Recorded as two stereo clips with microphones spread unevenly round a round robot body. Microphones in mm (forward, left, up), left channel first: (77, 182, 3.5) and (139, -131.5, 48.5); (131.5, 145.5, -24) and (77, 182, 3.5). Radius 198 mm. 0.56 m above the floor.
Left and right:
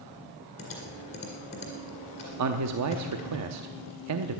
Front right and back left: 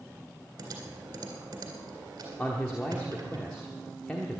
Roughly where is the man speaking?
Right.